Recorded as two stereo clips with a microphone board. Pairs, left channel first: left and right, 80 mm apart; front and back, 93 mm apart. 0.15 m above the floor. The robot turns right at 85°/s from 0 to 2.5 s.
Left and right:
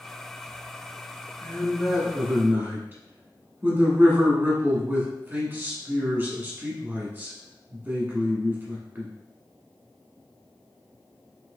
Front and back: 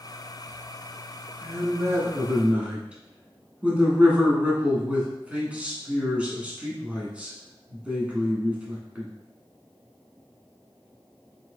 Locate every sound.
1.4 s a man speaking: 150° left, 1.5 m; by 9.1 s 120° right, 1.5 m